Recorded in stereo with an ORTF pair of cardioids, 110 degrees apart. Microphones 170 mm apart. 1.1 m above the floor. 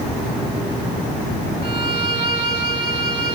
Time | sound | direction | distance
1.6 | a violin | 35° right | 2.5 m